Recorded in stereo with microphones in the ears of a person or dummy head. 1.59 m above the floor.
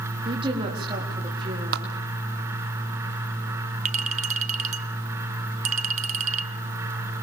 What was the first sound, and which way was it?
A woman speaking, 30° right (ahead or behind).